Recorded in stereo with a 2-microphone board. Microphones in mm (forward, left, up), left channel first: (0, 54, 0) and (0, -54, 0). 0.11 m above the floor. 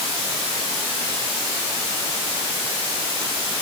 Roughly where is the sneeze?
No sneeze in this recording.